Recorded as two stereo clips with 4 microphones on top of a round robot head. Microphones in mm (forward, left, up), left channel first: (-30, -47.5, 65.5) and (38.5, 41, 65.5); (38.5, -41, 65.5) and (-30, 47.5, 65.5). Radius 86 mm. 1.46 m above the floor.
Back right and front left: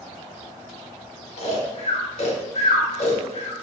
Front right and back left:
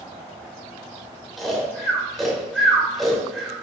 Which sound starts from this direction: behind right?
Snoring, at 1.4 s.